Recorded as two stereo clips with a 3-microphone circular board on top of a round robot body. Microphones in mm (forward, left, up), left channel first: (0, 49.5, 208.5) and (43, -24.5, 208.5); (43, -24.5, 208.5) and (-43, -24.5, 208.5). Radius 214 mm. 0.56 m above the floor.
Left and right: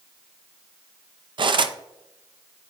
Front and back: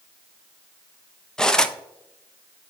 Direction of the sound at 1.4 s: 85° right.